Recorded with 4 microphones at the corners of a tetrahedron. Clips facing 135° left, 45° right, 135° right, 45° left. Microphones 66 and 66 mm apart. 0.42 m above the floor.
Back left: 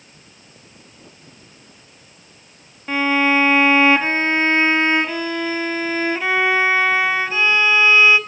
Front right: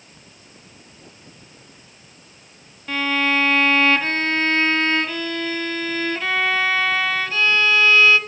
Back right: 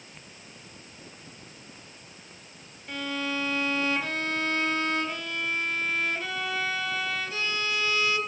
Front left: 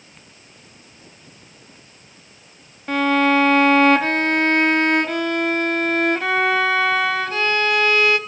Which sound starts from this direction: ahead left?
A violin, at 2.9 s.